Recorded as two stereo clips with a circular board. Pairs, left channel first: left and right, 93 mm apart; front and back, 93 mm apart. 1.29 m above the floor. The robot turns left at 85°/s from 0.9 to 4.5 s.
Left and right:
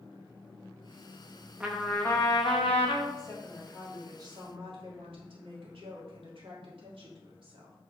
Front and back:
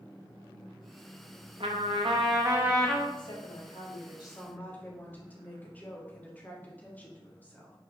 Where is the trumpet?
165° right, 1.4 m; by 3.1 s 70° left, 1.4 m.